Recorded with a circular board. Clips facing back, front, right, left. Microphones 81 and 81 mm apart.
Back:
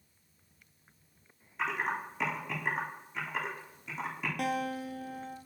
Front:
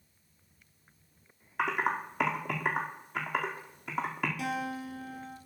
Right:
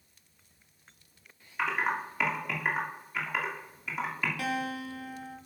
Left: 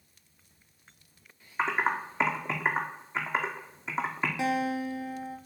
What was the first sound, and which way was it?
Typing on a keyboard, 30° left.